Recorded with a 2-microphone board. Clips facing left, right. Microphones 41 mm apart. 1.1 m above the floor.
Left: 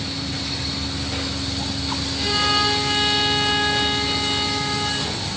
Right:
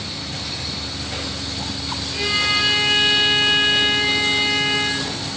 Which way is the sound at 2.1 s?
55° right (ahead or behind).